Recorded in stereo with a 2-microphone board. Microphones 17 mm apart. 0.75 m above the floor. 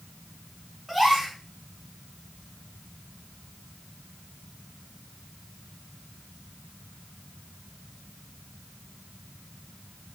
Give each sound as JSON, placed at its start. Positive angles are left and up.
{"t": 0.9, "sound": "a gasp", "side_deg": 0, "distance_m": 1.9}